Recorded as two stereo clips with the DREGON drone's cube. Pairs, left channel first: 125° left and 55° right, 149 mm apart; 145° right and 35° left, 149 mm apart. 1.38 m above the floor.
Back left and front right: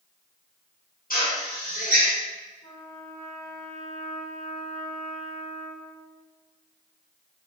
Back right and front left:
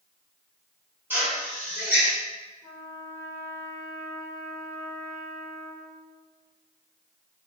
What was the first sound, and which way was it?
A drill, 110° left.